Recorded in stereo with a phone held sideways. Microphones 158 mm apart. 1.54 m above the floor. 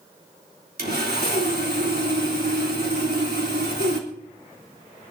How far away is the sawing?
About 3.5 m.